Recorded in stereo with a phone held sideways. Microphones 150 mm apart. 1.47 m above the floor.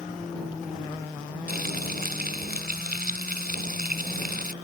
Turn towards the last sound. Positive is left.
turn(degrees=-80)